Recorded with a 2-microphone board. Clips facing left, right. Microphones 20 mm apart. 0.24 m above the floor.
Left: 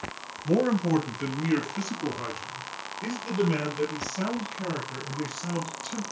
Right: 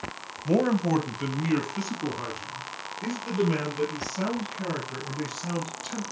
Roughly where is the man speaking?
Right.